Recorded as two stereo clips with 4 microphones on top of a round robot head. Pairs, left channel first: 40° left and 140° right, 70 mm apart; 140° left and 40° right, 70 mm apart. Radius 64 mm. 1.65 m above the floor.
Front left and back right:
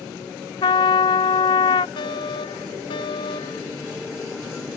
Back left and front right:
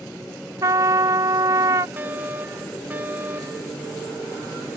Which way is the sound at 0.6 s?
10° left.